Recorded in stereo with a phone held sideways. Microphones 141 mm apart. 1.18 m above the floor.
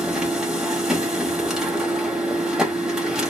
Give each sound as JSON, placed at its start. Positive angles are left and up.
{"t": 0.0, "sound": "a machine running", "side_deg": -5, "distance_m": 1.0}